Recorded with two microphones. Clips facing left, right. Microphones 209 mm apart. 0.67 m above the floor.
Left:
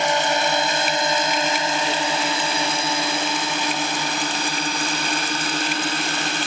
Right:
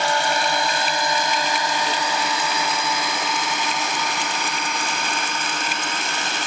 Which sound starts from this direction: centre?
A drone, at 0.0 s.